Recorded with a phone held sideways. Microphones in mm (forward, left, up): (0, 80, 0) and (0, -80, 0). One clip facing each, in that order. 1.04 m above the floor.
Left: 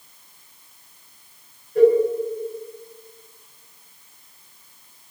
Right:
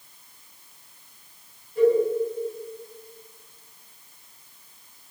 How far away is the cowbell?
About 8.5 m.